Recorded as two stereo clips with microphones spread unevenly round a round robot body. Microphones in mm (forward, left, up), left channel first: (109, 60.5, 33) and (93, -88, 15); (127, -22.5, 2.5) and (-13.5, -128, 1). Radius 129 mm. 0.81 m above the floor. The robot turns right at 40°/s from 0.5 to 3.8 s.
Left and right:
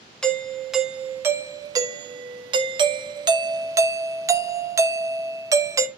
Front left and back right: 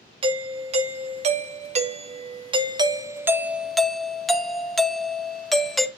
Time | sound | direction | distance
0.2 | a doorbell | 175° left | 0.9 m